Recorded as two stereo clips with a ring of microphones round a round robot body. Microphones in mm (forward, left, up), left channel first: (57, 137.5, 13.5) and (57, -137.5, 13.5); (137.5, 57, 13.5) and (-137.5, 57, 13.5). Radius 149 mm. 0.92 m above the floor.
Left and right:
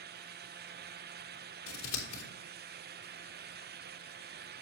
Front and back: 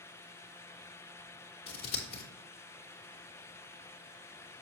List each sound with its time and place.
1.7 s scissors: 55° left, 2.5 m